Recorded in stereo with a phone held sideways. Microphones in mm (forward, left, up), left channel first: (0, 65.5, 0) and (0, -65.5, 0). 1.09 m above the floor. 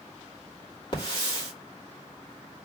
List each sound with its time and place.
0.9 s a hiss: 40° left (ahead or behind), 2.5 m